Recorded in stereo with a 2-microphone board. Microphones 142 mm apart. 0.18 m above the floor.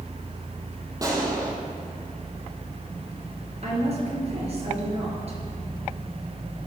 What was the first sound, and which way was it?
A gunshot, 25° right (ahead or behind).